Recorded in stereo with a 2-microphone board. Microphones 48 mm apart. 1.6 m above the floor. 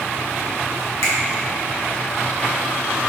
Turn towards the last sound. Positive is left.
turn(degrees=75)  # may be behind; listen again after turning